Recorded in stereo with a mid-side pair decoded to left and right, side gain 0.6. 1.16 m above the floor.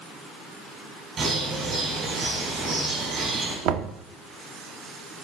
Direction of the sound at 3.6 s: 70° right.